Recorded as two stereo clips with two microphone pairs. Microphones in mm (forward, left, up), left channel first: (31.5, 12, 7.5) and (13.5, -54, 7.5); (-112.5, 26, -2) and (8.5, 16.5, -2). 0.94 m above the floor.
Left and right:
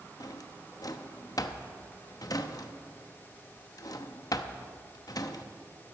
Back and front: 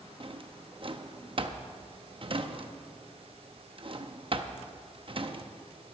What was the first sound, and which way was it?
A drawer, 40° left.